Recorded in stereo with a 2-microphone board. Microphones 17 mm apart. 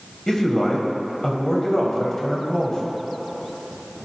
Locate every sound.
0.3 s a man speaking: 35° left (ahead or behind), 1.8 m